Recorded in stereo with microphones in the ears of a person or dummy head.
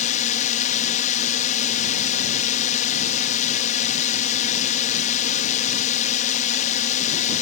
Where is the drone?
35° left (ahead or behind).